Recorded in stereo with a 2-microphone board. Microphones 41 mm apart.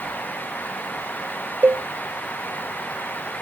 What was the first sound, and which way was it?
A cowbell, 60° right (ahead or behind).